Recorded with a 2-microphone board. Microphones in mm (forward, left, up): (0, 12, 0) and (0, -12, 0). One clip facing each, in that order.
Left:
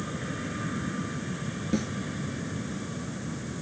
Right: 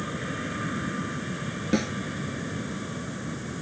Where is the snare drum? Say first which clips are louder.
Right 4 dB; 30° right (ahead or behind).